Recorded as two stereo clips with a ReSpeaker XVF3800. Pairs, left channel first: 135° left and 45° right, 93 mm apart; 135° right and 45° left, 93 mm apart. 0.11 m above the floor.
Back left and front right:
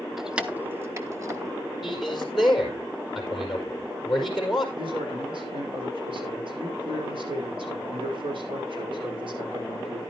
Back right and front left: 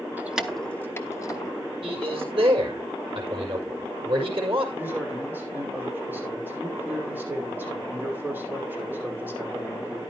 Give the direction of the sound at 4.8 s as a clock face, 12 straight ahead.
1 o'clock.